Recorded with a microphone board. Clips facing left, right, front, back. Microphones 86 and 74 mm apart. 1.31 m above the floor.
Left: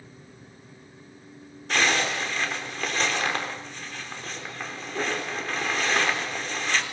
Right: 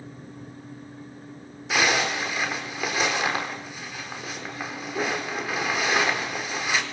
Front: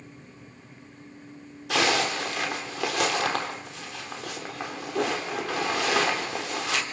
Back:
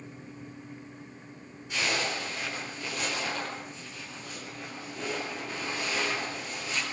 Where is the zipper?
10° right, 4 m.